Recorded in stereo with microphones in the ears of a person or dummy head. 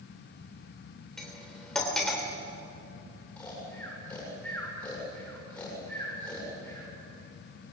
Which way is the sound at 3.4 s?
5° left (ahead or behind).